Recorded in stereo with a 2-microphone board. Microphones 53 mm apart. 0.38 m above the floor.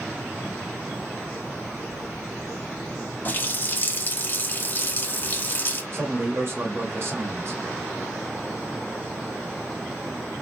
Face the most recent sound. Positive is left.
turn(degrees=-50)  # may be behind; listen again after turning